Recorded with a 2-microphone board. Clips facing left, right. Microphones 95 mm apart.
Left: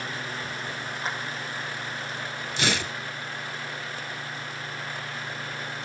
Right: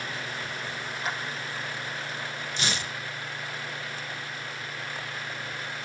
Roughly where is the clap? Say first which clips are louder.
Even; left.